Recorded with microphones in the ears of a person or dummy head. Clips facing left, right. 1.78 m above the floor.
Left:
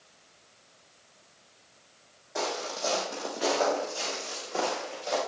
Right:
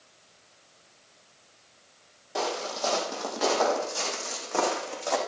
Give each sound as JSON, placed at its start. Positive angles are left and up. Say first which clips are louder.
{"t": 2.4, "sound": "footsteps", "louder": "right 2 dB", "side_deg": -50, "distance_m": 4.5}